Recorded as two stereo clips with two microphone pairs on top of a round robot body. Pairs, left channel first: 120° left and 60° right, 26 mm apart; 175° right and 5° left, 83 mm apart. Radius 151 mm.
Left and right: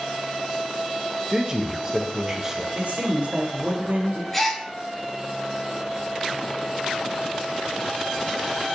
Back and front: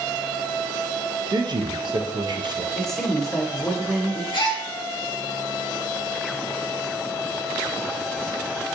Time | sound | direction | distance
1.3 | a man speaking | 10° left | 0.6 m
2.8 | a man speaking | 90° right | 0.7 m
4.3 | a gasp | 155° right | 0.8 m